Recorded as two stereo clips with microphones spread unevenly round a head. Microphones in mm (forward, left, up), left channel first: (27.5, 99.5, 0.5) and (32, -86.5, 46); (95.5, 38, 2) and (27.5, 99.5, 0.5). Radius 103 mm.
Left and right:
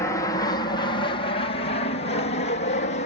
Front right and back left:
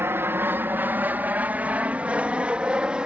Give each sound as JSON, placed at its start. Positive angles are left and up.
{"t": 0.0, "sound": "an aircraft", "azimuth_deg": 110}